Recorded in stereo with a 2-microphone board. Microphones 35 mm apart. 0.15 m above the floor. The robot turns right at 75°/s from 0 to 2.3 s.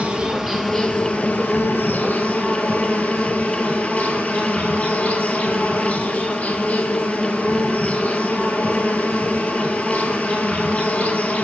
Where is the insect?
40° right, 1.1 m; by 11.4 s 130° left, 1.1 m.